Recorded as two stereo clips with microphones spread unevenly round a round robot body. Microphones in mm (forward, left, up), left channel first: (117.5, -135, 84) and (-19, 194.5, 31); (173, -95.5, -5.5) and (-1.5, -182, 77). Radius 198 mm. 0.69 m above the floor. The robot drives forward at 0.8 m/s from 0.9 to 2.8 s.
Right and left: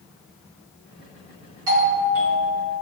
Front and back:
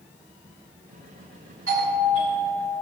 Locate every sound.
1.7 s a doorbell: 145° left, 4.5 m; by 2.7 s 155° left, 5 m